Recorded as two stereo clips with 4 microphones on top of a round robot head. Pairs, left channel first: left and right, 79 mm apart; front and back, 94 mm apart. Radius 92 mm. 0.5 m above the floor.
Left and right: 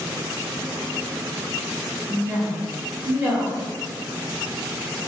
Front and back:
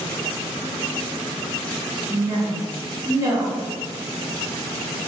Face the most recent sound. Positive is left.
turn(degrees=-140)